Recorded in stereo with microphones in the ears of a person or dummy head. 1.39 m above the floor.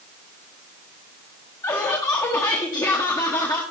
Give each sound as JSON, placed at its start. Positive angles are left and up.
{"t": 1.6, "sound": "laughter", "side_deg": 20, "distance_m": 1.3}